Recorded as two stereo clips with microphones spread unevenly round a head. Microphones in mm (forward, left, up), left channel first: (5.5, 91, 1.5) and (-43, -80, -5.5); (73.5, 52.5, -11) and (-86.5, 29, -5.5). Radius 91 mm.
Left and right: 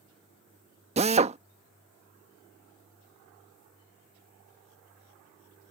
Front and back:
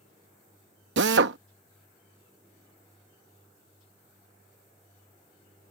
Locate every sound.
1.0 s a drill: 160° right